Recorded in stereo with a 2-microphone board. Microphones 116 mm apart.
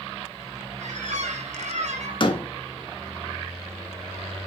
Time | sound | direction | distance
0.8 | a squeak | 80° right | 1.1 m
2.2 | a door slam | 45° left (ahead or behind) | 1.0 m